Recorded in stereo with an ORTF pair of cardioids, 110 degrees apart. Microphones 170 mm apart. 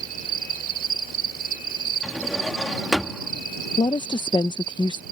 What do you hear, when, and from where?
0.0 s an insect: 60° right
2.0 s a drawer: 5° right
3.8 s a woman speaking: 25° left